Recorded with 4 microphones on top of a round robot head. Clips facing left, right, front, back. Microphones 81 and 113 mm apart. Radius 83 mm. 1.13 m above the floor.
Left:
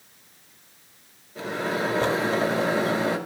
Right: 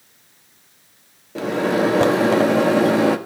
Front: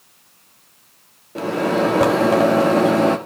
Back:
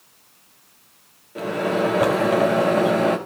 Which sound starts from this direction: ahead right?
A microwave, at 1.4 s.